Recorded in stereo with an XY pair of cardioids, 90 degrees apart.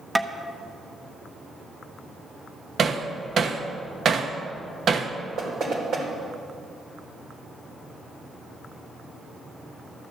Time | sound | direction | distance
0.1 | tapping | 10° right | 1.0 m
2.8 | hammering | 55° right | 1.1 m
5.4 | knocking | 60° right | 3.5 m